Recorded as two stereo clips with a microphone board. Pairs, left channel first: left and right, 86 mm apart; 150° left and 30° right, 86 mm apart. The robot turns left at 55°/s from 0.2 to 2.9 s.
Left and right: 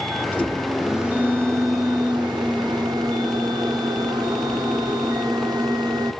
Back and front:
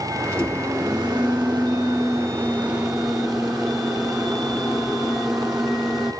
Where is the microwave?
30° left, 0.9 m; by 6.1 s 115° right, 0.9 m.